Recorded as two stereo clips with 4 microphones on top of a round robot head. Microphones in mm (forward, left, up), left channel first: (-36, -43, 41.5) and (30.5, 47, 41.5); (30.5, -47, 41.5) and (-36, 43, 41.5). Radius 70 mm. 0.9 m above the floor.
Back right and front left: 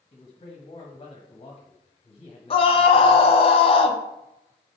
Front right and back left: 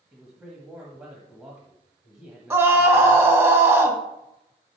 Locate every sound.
0.1 s a man speaking: 165° right, 1.4 m
2.5 s a scream: 165° right, 1.4 m